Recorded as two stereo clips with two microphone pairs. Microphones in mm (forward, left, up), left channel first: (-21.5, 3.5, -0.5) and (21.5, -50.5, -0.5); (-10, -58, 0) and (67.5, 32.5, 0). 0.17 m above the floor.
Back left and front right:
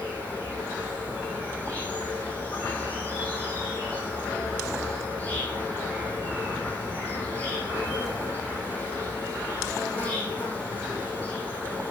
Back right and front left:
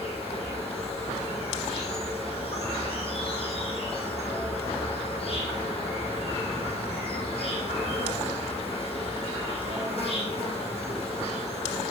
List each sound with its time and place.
0.0 s an insect: 165° right, 4 m